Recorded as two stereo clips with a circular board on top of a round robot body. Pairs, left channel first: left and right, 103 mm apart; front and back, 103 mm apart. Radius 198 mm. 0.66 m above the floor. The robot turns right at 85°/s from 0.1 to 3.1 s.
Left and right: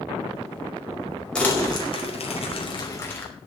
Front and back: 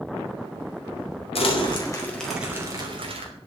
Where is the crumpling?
10° left, 5 m; by 3.3 s 160° left, 5 m.